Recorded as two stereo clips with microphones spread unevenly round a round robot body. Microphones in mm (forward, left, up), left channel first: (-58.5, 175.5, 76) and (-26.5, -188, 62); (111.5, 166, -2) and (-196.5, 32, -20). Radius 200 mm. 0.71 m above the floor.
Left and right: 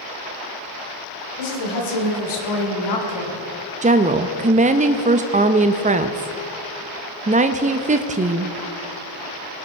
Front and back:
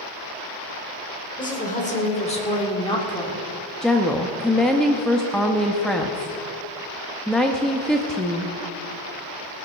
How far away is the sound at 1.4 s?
About 3 m.